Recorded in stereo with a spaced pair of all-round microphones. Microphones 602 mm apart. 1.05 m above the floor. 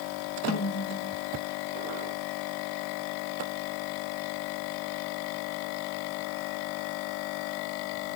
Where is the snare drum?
25° left (ahead or behind), 1.7 m.